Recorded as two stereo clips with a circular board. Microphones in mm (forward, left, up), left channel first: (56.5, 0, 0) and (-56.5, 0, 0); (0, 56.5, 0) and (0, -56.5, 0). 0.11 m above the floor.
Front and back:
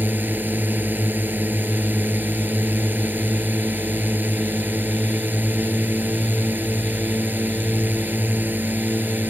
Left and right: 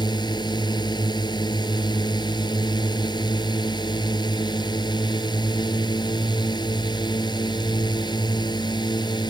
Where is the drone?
115° left.